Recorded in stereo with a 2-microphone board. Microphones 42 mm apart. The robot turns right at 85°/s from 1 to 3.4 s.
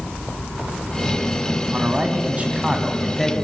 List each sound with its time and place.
1.7 s a man speaking: 125° right, 1.4 m; by 3.4 s 20° left, 1.4 m